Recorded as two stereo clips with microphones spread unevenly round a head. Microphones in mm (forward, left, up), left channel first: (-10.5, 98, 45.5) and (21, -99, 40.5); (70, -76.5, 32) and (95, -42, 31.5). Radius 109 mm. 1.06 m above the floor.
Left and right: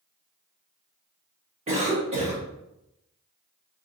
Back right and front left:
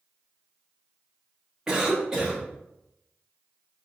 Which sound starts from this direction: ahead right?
A cough, at 1.7 s.